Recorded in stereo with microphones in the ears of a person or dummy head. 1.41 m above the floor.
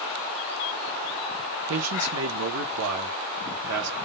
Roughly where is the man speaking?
Right.